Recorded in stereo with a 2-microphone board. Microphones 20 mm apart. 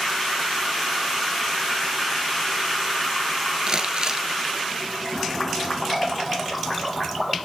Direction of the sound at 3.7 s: 35° right (ahead or behind).